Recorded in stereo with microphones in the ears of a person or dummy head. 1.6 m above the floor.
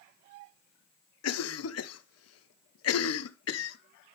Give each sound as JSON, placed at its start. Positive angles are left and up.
{"t": 1.2, "sound": "a cough", "side_deg": 75, "distance_m": 0.6}